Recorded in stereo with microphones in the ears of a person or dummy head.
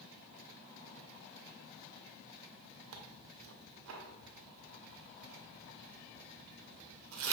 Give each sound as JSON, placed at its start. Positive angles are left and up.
{"t": 2.9, "sound": "tearing paper", "side_deg": -80, "distance_m": 0.6}